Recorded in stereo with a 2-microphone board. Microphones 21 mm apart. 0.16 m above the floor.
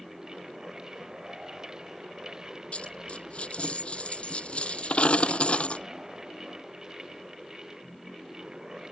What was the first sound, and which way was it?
A dropped coin, 60° left (ahead or behind).